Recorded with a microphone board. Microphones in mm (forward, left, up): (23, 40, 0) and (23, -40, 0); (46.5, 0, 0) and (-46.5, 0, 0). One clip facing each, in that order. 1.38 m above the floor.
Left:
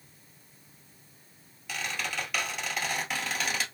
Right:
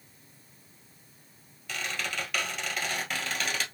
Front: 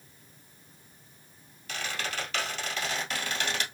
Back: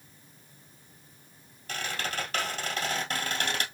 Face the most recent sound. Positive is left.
turn(degrees=175)